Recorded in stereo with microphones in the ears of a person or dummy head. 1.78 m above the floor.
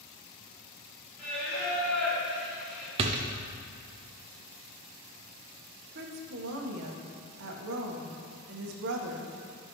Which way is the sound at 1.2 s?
5° left (ahead or behind).